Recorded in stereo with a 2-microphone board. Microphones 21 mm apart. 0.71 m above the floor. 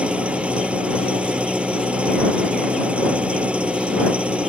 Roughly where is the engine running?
Right.